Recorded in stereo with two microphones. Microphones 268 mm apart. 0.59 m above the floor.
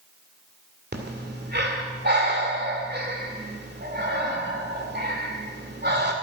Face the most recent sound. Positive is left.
turn(degrees=-40)  # may be behind; listen again after turning